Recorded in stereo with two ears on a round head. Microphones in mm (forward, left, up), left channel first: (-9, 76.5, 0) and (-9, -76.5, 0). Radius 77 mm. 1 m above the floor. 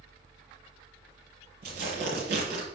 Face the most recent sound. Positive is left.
turn(degrees=-65)  # may be behind; listen again after turning